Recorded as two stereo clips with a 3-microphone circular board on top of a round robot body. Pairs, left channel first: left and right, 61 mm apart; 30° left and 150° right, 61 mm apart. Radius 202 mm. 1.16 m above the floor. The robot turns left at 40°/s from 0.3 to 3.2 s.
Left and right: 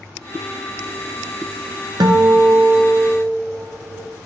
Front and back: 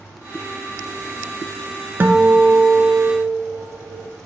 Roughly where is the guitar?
Right.